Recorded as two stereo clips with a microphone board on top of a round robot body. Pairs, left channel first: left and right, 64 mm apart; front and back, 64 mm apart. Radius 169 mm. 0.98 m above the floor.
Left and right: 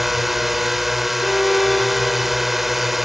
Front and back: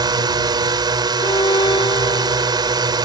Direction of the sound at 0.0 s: Straight behind.